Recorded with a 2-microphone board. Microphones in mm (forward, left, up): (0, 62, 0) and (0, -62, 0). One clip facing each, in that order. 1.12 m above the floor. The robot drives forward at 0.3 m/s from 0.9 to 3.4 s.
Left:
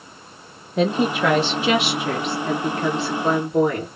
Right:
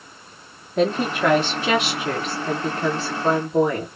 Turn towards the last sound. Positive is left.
turn(degrees=5)  # may be behind; listen again after turning